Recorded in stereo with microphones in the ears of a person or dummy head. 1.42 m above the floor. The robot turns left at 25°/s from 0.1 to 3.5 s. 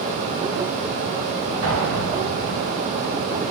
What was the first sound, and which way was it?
An explosion, 65° right (ahead or behind).